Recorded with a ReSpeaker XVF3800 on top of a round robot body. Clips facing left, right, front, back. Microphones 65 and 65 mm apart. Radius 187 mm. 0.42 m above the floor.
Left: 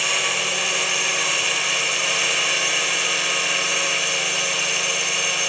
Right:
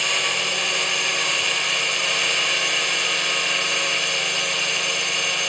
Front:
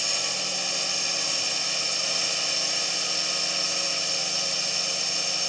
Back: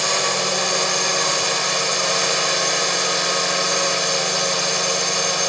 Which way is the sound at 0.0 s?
Straight behind.